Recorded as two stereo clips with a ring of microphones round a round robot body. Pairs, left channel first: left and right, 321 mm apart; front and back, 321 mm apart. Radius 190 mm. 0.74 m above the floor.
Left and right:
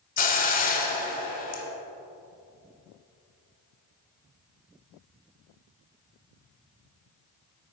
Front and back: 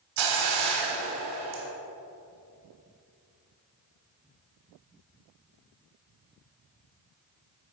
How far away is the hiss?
About 1.0 m.